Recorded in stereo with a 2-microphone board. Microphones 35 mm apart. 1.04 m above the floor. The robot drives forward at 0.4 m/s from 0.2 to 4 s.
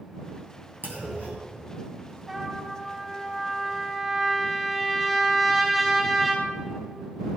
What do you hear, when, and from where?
0.8 s a clunk: 70° right (ahead or behind), 2.5 m; by 1.5 s 65° right (ahead or behind), 2.5 m
2.3 s a trumpet: 10° right (ahead or behind), 3 m